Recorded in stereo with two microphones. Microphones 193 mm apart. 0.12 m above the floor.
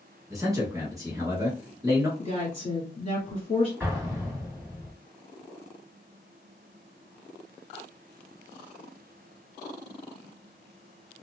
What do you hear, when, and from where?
0.3 s a man speaking: 15° right (ahead or behind), 1.3 m
2.2 s a woman speaking: 30° left (ahead or behind), 1.4 m
3.8 s an explosion: 10° right (ahead or behind), 1.7 m